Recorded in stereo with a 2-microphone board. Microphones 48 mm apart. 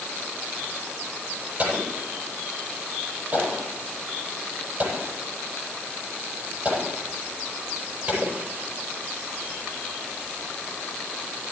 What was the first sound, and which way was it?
An explosion, 35° right (ahead or behind).